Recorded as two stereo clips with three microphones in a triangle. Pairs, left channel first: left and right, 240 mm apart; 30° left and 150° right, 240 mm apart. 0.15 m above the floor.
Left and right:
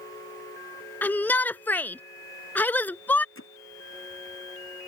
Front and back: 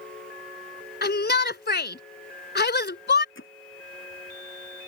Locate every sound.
1.0 s a shout: 10° left
3.4 s hammering: 65° left